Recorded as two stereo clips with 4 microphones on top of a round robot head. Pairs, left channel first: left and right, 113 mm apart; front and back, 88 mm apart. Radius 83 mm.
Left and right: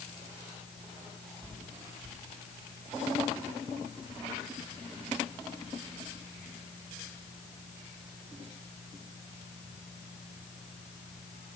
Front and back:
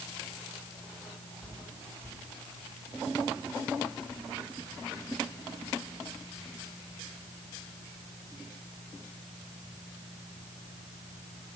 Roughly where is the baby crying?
No baby crying in this recording.